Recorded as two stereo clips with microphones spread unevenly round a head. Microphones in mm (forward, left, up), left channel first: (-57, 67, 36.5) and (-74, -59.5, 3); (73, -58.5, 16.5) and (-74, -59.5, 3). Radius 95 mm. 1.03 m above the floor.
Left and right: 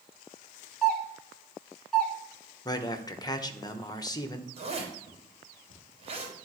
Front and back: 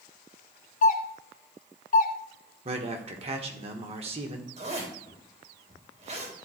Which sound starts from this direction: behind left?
A man speaking, at 2.6 s.